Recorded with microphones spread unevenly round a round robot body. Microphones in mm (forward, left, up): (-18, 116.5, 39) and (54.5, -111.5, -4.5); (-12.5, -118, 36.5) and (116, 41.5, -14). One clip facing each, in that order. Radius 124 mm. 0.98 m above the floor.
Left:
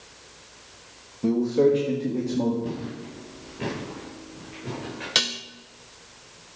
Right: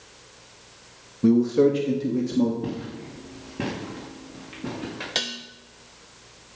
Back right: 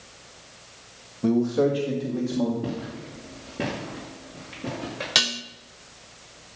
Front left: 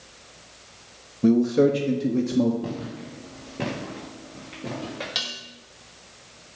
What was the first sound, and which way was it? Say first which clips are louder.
A man speaking: right 2 dB, front left 3 dB; 10° right.